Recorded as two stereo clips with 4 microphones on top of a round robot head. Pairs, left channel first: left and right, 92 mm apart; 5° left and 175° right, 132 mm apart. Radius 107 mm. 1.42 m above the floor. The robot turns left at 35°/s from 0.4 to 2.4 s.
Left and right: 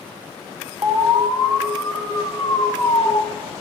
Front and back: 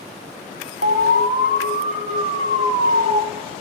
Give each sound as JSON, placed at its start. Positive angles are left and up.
{"t": 0.8, "sound": "an alarm", "azimuth_deg": -155, "distance_m": 0.5}